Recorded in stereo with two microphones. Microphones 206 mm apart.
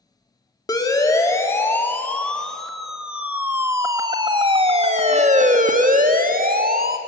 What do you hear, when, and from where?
0.7 s a siren: 15° left (ahead or behind), 2.5 m; by 7.0 s 45° right (ahead or behind), 2 m